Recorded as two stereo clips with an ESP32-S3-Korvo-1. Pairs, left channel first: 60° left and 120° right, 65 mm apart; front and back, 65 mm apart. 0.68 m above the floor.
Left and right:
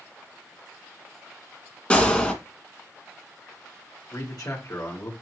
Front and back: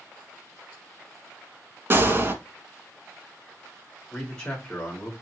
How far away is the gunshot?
About 1.2 m.